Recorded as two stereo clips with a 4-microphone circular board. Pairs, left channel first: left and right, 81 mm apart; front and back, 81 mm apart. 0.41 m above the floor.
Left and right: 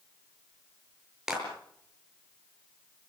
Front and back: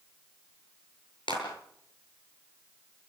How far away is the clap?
About 7.5 m.